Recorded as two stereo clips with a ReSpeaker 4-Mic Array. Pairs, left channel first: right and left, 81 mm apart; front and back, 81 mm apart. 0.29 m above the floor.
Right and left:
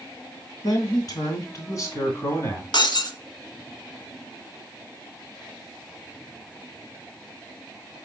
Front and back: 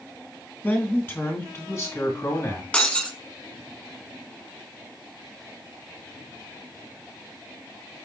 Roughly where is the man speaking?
Ahead right.